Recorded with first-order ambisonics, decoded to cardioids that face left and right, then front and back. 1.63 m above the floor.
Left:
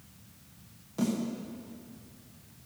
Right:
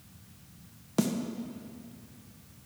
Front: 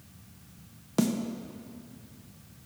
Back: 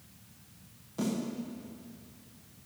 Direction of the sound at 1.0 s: 40° right.